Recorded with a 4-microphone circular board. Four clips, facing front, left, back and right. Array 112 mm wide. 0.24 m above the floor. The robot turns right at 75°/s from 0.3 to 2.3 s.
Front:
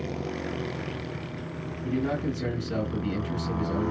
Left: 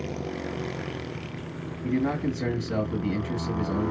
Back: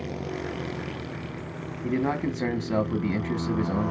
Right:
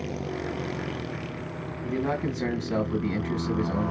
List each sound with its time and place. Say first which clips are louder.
1.8 s a man speaking: left 2 dB, back 2 dB; 160° left, 1.6 m; by 3.9 s 165° right, 1.6 m